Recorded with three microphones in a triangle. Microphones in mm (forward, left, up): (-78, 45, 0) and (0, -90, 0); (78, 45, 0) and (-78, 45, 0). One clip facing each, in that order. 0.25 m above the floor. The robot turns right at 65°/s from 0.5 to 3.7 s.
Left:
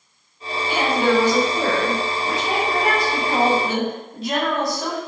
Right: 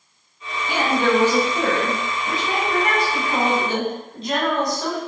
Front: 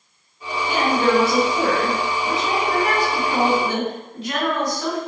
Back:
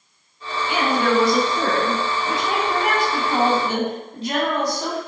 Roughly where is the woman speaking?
Ahead.